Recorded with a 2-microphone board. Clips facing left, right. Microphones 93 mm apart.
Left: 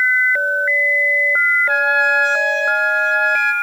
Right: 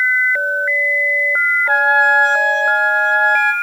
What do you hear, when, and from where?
1.7 s a trumpet: 45° right (ahead or behind), 1.8 m